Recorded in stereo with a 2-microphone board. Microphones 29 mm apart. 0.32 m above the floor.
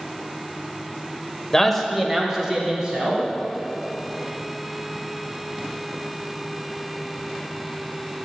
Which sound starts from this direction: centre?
A man speaking, at 1.5 s.